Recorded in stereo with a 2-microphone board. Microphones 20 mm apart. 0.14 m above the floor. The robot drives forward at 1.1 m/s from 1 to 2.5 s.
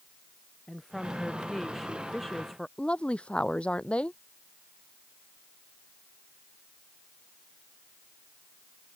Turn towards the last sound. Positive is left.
turn(degrees=70)  # may be behind; listen again after turning